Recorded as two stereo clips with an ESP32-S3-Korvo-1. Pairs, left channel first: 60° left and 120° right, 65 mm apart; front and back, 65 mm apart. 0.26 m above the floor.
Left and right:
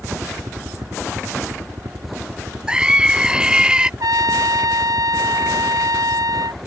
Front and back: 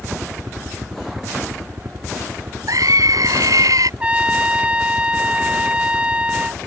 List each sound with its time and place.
0.0 s a helicopter: 125° right; by 6.7 s 145° right
2.7 s a scream: 165° left
4.0 s a trumpet: 110° right